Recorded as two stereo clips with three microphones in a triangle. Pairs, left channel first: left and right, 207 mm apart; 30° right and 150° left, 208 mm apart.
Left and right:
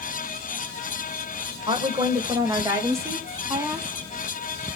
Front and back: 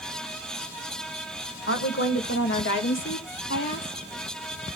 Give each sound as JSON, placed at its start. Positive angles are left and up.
{"t": 1.7, "sound": "a woman speaking", "azimuth_deg": -25, "distance_m": 1.5}